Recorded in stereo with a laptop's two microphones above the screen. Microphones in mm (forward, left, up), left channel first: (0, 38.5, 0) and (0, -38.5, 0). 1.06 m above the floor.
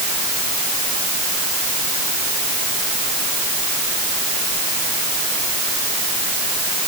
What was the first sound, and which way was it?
Only background noise.